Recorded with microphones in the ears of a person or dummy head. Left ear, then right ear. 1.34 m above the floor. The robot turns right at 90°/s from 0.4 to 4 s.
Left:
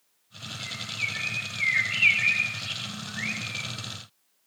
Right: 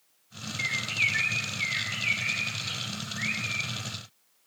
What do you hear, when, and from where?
0.6 s a bird: 70° right (ahead or behind), 2.5 m; by 3.7 s 30° right (ahead or behind), 2.5 m